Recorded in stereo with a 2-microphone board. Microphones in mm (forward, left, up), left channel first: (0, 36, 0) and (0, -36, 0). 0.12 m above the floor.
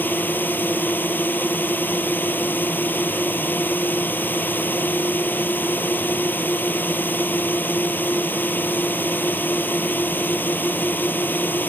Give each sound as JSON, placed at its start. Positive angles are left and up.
{"t": 0.0, "sound": "a drone", "side_deg": 25}